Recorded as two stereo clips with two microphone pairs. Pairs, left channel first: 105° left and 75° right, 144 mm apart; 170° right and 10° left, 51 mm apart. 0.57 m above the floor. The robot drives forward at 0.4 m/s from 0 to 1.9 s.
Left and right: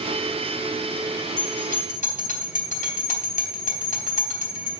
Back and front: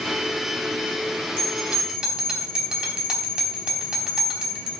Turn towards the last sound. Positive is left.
turn(degrees=80)